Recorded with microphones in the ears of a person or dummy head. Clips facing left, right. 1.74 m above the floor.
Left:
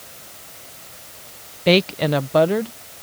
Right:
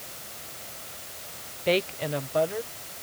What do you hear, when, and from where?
1.7 s a woman speaking: 55° left (ahead or behind); by 2.7 s 65° left (ahead or behind)